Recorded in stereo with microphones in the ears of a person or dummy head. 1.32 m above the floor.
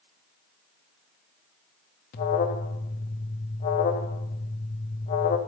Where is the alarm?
45° left (ahead or behind), 0.7 m.